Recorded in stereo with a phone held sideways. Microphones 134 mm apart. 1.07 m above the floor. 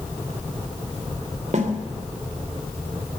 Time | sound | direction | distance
1.5 | a snare drum | 60° right (ahead or behind) | 3 m